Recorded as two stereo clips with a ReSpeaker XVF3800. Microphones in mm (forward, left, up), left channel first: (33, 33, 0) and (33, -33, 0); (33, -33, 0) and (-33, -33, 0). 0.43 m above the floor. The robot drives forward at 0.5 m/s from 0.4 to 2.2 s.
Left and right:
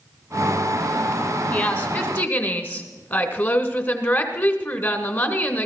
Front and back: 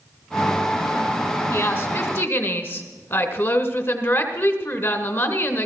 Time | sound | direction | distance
1.5 | a woman speaking | 40° left | 2 m